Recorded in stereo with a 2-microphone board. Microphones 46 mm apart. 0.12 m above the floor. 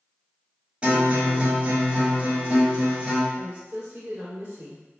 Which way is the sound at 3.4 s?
55° right (ahead or behind).